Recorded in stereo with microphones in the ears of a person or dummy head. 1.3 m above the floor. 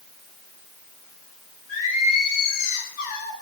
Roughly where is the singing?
Left.